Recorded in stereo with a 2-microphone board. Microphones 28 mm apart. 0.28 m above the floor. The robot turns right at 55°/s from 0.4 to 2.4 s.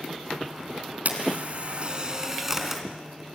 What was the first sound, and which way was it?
A camera shutter, 90° right.